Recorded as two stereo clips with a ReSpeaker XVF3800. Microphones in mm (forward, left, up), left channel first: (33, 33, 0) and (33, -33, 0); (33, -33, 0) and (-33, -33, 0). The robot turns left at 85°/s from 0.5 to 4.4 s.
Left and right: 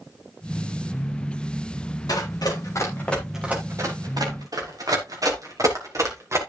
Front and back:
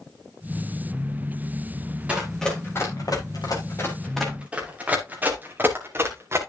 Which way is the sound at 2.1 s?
110° left.